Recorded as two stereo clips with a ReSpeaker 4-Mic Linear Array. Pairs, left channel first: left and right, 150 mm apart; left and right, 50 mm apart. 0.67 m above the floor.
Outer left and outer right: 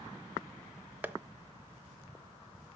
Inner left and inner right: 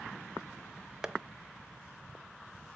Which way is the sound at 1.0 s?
10° right (ahead or behind).